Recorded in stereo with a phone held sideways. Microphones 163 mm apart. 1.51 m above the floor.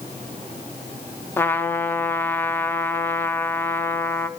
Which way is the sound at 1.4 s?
15° left (ahead or behind).